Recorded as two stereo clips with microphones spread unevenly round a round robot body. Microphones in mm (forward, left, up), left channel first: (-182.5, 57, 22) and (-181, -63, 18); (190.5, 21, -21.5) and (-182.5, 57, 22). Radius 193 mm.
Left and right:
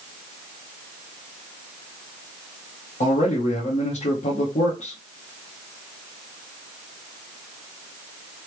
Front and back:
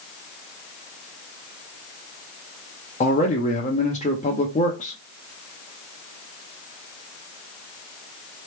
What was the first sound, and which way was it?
A man speaking, 60° left.